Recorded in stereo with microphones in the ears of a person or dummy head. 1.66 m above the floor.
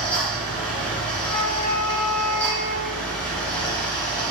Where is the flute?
55° left (ahead or behind), 1.2 m.